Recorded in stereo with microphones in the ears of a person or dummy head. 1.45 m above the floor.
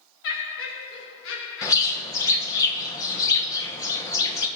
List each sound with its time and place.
0.2 s laughter: 70° left (ahead or behind), 1.2 m
1.6 s a bird: 20° left (ahead or behind), 1.3 m